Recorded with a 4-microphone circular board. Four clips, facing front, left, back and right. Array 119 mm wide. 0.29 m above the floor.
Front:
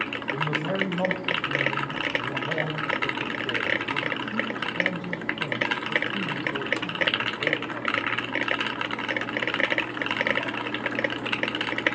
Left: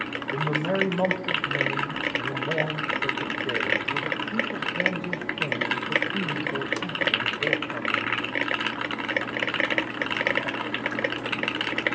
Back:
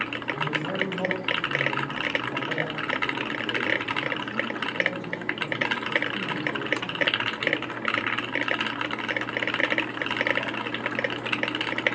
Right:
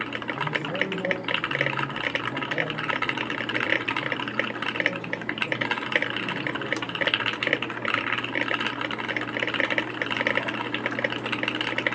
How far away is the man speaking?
About 8 m.